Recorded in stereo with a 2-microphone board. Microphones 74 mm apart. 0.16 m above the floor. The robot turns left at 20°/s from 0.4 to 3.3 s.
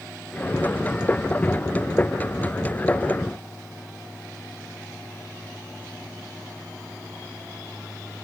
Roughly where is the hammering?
No hammering in this recording.